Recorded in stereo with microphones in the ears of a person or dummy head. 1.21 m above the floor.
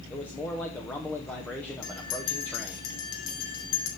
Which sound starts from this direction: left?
A bell, at 1.8 s.